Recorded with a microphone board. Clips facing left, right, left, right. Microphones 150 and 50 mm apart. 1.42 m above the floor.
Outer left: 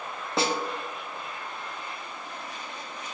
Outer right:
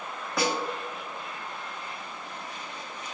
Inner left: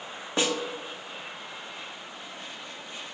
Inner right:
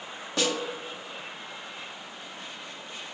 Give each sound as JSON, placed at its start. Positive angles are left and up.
{"t": 0.4, "sound": "a snare drum", "side_deg": 25, "distance_m": 0.6}